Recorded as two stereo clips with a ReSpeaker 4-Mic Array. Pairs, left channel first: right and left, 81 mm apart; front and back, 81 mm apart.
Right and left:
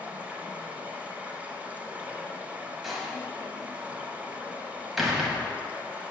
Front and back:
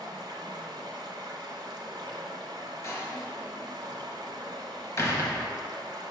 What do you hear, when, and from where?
0.0 s running water: 160° left, 0.8 m
2.8 s a door slam: 5° left, 0.9 m